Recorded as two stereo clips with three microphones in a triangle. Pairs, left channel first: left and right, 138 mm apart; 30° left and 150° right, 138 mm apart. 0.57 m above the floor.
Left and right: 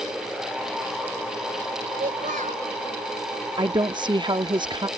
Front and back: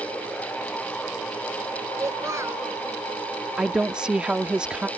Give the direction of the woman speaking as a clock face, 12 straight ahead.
2 o'clock.